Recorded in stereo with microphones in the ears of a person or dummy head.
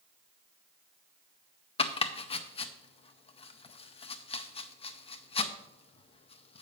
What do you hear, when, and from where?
1.8 s chopping: 30° left (ahead or behind), 0.6 m